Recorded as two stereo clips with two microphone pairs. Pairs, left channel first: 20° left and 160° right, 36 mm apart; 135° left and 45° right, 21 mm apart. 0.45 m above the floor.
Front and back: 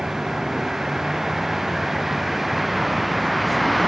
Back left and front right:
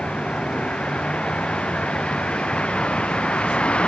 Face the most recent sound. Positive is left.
turn(degrees=110)